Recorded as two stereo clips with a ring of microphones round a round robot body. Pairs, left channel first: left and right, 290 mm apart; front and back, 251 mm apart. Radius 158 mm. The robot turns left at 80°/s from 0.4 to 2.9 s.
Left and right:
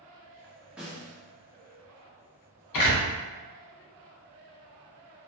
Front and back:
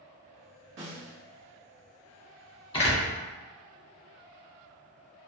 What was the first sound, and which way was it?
A snare drum, 175° right.